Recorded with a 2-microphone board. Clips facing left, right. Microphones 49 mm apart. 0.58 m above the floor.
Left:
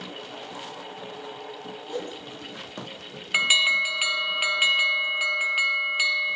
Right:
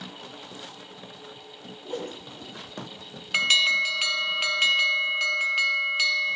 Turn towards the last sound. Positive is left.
turn(degrees=15)  # may be behind; listen again after turning